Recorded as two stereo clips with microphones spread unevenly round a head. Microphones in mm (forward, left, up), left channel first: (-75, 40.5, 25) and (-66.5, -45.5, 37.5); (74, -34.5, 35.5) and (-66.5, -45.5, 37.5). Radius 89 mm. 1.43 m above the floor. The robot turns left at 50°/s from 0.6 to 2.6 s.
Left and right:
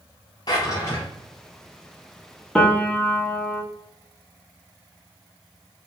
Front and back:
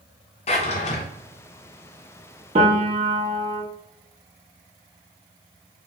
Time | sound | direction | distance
0.5 | a drawer | 40° left | 0.6 m
2.5 | a piano | straight behind | 0.9 m